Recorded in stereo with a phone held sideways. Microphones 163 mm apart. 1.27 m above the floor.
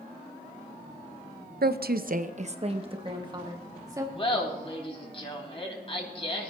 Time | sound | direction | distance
1.6 | a woman speaking | 75° right (ahead or behind) | 0.6 m
4.2 | laughter | 35° left (ahead or behind) | 2.5 m